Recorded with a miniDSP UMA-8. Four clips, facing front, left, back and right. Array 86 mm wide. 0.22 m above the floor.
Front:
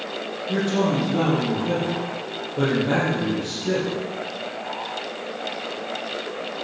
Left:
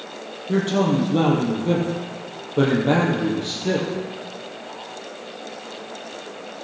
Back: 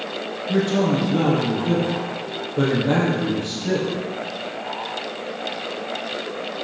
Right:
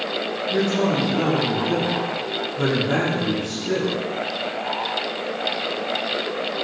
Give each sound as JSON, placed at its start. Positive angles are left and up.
{"t": 0.5, "sound": "a man speaking", "azimuth_deg": 95, "distance_m": 5.5}